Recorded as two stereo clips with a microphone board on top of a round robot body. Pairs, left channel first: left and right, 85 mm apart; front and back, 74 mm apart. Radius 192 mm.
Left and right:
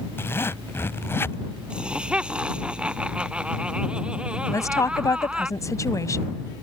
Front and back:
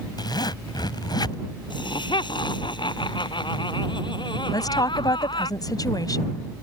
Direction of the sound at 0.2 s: 25° left.